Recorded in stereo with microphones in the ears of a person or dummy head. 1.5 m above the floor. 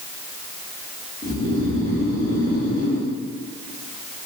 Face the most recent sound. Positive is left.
turn(degrees=25)  # may be behind; listen again after turning